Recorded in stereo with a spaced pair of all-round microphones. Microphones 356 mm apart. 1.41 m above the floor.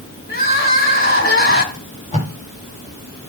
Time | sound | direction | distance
0.3 | crying | 35° left (ahead or behind) | 2.5 m
1.7 | tape being pulled | 20° left (ahead or behind) | 4.5 m